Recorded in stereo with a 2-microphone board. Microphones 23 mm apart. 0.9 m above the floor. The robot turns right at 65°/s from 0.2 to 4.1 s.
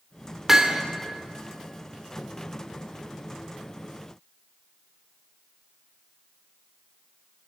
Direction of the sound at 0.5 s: 20° right (ahead or behind).